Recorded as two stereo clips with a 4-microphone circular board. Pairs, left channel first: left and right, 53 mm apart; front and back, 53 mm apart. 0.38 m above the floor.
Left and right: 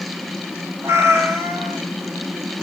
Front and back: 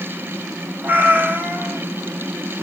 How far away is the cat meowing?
About 1.3 m.